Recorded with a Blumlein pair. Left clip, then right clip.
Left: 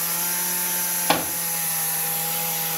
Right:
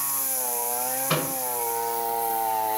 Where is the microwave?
45° left, 4 m.